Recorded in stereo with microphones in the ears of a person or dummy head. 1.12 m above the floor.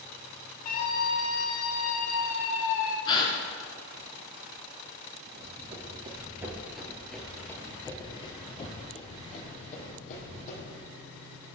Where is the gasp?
25° left (ahead or behind), 2.0 m.